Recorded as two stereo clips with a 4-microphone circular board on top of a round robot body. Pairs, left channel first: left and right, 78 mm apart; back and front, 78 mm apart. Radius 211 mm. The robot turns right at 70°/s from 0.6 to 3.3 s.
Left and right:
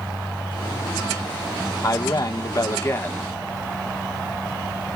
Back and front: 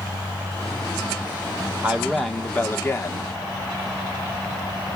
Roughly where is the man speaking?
Ahead left.